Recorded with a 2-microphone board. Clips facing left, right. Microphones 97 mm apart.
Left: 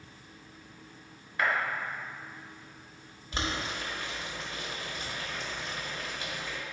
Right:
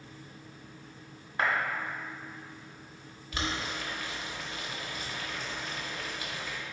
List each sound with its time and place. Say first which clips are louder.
1.4 s a clap: even; 30° right (ahead or behind), 1.0 m
3.3 s boiling: left 1 dB; 30° left (ahead or behind), 0.9 m